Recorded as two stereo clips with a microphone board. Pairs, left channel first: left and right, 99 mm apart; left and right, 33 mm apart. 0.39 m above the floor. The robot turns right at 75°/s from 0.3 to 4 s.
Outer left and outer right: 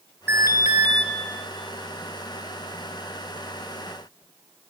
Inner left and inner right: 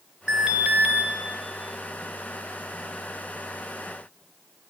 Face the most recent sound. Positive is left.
turn(degrees=125)